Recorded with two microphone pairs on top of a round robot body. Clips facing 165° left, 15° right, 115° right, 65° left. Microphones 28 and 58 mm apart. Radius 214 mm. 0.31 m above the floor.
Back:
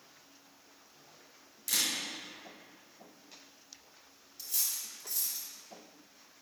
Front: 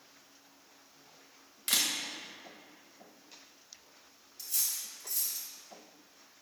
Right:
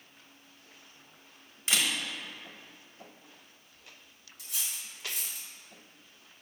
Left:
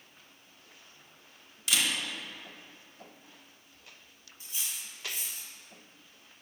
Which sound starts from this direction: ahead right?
A camera shutter, at 1.7 s.